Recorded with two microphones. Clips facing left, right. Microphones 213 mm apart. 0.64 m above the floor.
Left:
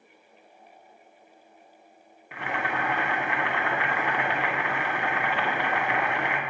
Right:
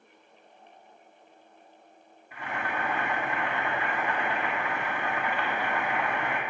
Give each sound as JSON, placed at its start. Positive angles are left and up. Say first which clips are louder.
{"t": 2.3, "sound": "boiling", "louder": "left 3 dB", "side_deg": 75, "distance_m": 0.5}